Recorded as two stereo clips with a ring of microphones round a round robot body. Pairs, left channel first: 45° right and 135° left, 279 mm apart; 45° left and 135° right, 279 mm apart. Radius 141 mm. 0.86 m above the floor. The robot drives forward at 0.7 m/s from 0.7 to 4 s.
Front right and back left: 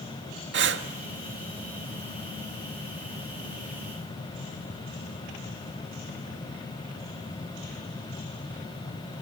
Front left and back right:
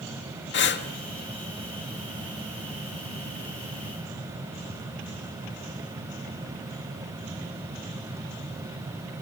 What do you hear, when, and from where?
0.5 s breathing: 90° left, 1.7 m; by 0.9 s 95° left, 1.7 m